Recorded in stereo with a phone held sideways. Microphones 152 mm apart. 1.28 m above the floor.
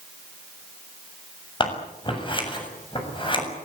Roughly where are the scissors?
Left.